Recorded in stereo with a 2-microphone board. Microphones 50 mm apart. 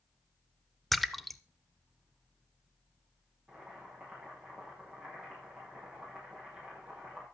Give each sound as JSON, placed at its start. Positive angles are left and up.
{"t": 0.9, "sound": "a splash", "side_deg": 0, "distance_m": 0.7}
{"t": 3.5, "sound": "boiling", "side_deg": -20, "distance_m": 6.5}